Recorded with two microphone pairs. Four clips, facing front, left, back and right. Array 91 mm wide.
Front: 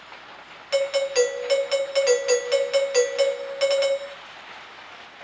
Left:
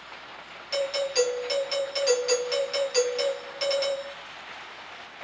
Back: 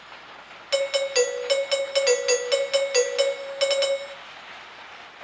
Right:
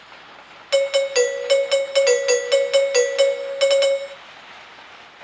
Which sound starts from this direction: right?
A doorbell, at 0.7 s.